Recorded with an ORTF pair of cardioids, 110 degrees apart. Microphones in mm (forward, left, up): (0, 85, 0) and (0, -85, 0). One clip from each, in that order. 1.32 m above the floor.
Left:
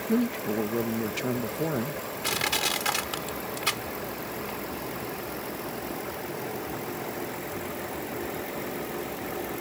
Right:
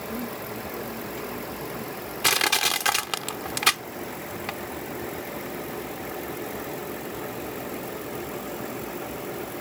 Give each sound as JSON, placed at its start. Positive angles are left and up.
{"t": 0.1, "sound": "a man speaking", "azimuth_deg": 70}
{"t": 2.2, "sound": "crushing", "azimuth_deg": -60}